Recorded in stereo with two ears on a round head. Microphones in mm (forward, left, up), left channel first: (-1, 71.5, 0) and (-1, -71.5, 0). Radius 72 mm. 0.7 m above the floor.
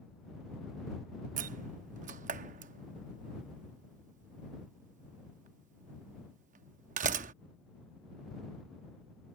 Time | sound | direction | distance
1.4 | a door slam | 50° right (ahead or behind) | ?